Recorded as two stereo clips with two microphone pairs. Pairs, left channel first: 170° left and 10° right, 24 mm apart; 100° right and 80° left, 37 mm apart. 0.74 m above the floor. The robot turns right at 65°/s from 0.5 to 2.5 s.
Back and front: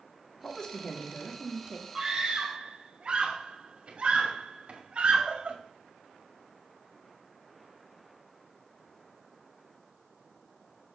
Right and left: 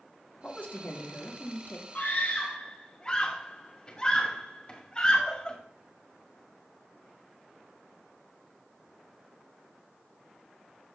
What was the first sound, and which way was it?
A woman speaking, 140° right.